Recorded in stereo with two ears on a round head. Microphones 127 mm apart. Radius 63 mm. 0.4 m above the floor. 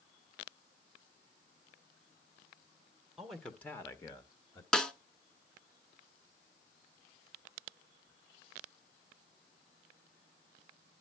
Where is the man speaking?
Centre (ahead or behind), 1.3 m; by 4.6 s 30° left (ahead or behind), 1.7 m.